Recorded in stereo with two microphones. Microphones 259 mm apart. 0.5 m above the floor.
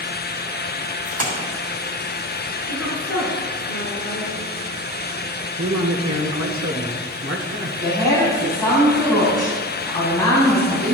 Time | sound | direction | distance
1.1 | a splash | 65° right (ahead or behind) | 3 m
2.7 | a woman speaking | 60° left (ahead or behind) | 5 m
5.6 | a man speaking | 55° right (ahead or behind) | 1.3 m
7.8 | a woman speaking | 15° left (ahead or behind) | 3.5 m